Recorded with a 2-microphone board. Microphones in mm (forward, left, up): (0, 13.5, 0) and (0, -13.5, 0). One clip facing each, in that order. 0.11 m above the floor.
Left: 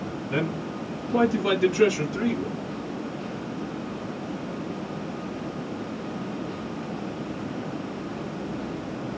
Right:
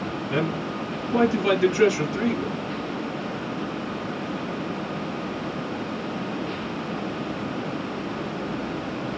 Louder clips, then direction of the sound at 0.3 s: Right 2 dB; 20° right (ahead or behind).